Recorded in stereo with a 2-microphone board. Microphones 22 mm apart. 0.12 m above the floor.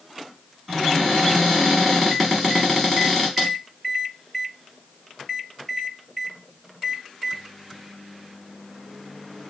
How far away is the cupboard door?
About 1.5 m.